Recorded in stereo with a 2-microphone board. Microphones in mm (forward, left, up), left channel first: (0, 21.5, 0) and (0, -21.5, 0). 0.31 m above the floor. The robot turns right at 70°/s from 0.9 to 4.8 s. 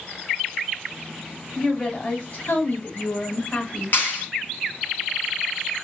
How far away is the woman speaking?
About 1.9 m.